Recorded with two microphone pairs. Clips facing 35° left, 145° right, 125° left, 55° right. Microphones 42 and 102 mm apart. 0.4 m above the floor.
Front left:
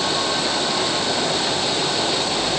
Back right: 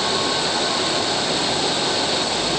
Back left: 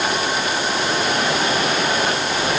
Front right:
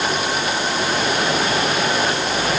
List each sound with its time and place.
Only background noise.